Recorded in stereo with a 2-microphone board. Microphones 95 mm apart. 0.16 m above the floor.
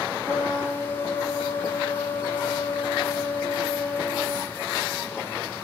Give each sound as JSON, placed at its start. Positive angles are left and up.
{"t": 0.2, "sound": "a trumpet", "side_deg": 45, "distance_m": 1.8}